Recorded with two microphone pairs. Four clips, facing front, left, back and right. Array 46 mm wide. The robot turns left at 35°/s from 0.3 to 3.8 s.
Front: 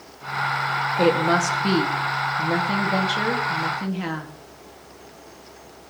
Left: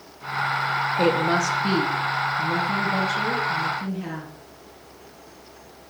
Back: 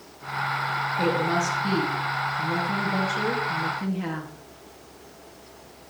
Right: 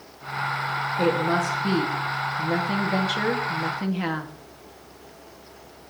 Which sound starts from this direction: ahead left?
A woman speaking, at 1.0 s.